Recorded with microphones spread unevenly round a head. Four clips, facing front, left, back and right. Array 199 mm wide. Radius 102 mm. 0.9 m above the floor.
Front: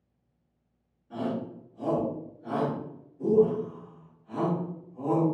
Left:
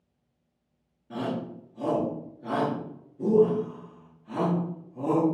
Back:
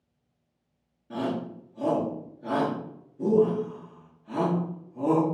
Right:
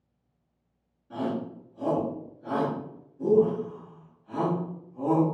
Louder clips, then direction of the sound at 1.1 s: Right 1 dB, back 2 dB; 155° left.